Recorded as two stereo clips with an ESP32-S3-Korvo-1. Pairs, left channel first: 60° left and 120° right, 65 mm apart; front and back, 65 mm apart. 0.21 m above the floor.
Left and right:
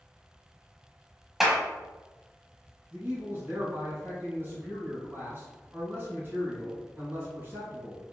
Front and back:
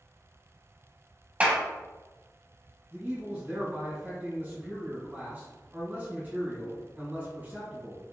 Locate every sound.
1.4 s a clap: 155° left, 0.8 m
2.9 s a man speaking: 145° right, 1.9 m